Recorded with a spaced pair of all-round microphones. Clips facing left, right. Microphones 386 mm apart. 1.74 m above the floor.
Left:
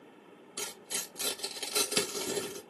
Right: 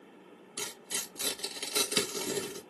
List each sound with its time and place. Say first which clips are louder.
0.6 s tearing paper: even; 5° right (ahead or behind), 1.1 m